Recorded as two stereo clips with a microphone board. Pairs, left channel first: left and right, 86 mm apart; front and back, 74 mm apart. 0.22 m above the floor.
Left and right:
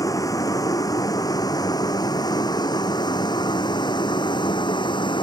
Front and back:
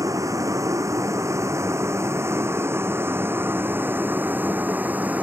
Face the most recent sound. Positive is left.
turn(degrees=110)